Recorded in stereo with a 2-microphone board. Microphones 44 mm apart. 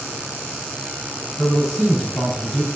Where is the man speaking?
10° right (ahead or behind), 5 m; by 2.7 s centre (ahead or behind), 4.5 m.